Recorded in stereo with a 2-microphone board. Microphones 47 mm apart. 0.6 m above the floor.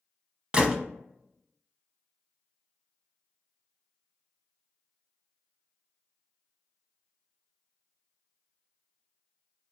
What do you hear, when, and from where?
0.5 s a gunshot: 25° right (ahead or behind), 0.6 m